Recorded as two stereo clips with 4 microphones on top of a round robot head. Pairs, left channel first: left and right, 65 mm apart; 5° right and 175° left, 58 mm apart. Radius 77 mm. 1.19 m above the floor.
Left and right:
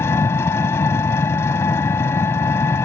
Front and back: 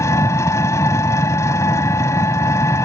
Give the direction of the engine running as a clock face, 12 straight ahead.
11 o'clock.